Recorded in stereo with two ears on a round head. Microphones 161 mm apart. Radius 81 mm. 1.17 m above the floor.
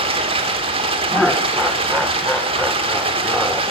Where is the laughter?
Centre (ahead or behind), 0.6 m.